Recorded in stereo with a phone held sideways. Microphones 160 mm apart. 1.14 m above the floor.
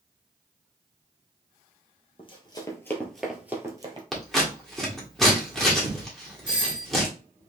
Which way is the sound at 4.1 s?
Centre (ahead or behind).